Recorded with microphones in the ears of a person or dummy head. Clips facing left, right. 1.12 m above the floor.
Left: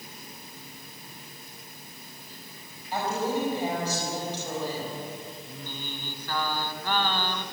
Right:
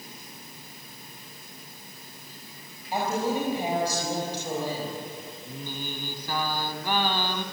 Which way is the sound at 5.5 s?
10° right (ahead or behind).